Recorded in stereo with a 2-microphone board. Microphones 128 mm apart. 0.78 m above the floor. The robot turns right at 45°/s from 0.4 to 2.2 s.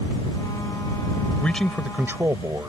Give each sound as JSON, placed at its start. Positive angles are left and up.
{"t": 1.4, "sound": "a man speaking", "azimuth_deg": 170}